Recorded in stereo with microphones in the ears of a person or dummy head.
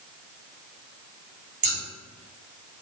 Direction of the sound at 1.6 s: 40° right (ahead or behind).